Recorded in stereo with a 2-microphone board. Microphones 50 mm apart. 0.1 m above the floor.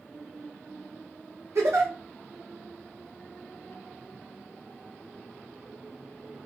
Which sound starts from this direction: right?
A giggle, at 1.6 s.